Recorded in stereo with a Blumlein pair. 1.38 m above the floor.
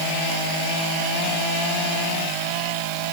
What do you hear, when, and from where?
Only background noise.